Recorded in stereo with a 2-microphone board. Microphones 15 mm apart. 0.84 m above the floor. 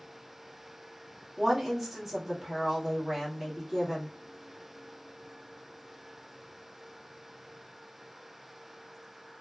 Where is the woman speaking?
15° right (ahead or behind), 1.6 m.